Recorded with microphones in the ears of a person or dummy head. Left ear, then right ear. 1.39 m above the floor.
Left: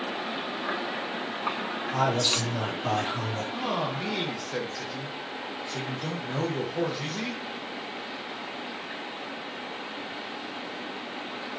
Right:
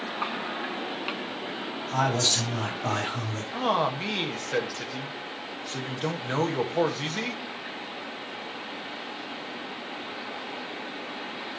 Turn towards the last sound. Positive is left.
turn(degrees=-35)  # may be behind; listen again after turning